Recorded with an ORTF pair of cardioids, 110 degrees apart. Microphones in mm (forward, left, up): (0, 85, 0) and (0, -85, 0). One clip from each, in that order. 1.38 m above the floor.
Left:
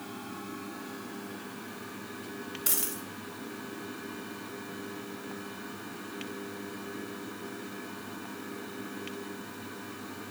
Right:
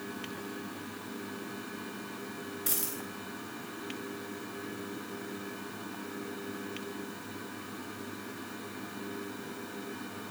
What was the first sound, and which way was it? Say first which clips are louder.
A dropped coin: left 3 dB; 30° left.